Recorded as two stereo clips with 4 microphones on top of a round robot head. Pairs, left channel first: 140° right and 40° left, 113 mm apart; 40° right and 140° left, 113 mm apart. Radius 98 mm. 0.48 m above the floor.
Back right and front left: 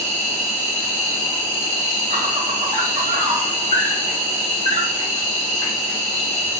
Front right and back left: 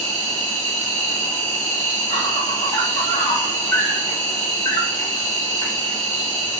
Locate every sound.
0.0 s an insect: 10° left, 3 m